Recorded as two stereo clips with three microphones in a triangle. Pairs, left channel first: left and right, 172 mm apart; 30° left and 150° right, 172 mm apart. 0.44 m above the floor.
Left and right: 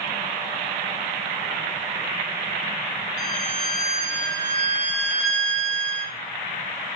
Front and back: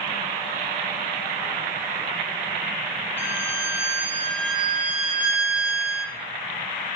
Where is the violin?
135° left, 1.5 m.